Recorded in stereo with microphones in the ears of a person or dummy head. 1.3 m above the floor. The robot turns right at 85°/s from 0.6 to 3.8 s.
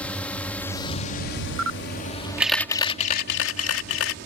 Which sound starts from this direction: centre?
A drone, at 0.0 s.